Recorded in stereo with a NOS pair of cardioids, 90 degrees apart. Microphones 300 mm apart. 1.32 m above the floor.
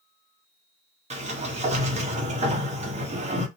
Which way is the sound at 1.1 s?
25° right.